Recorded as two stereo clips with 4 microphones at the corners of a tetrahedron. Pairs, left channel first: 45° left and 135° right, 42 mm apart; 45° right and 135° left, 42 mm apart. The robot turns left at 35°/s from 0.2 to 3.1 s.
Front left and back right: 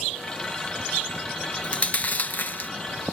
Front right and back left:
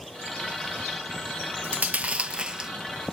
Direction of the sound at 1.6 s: 100° left.